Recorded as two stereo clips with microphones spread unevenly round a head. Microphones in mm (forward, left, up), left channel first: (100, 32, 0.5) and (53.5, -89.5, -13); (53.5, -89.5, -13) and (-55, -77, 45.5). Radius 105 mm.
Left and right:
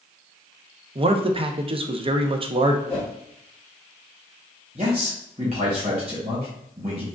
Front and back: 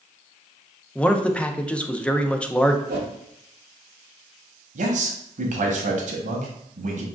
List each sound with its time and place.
0.9 s a man speaking: 70° right, 0.7 m
2.9 s a whoosh: 150° left, 0.9 m
4.8 s a man speaking: 175° right, 1.0 m